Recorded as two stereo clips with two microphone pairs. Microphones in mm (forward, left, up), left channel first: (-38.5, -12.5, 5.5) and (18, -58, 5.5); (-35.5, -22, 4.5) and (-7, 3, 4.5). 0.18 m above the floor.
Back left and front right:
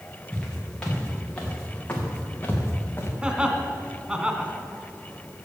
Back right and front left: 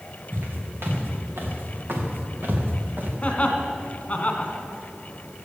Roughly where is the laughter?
Right.